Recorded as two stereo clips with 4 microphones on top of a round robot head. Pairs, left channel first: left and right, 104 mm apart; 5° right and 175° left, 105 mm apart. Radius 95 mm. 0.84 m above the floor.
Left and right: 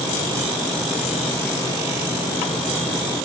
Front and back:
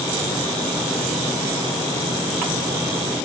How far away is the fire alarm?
I don't hear a fire alarm.